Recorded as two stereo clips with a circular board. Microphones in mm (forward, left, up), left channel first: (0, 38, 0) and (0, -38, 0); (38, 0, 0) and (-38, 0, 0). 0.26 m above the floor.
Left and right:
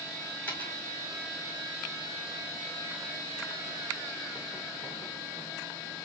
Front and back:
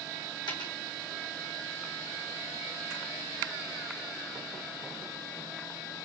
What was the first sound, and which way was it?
A dropped coin, 20° left.